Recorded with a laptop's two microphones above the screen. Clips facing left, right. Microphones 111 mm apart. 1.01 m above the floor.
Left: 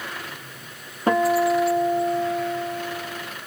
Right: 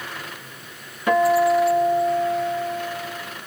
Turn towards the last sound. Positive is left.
turn(degrees=40)  # may be behind; listen again after turning